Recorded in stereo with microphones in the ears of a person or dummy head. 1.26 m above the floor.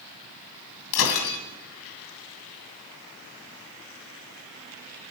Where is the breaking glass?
70° left (ahead or behind), 2.5 m.